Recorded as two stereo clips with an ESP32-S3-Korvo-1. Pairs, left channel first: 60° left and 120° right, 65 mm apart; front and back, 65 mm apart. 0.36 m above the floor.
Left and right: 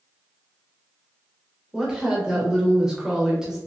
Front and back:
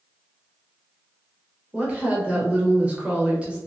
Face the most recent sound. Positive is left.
turn(degrees=-175)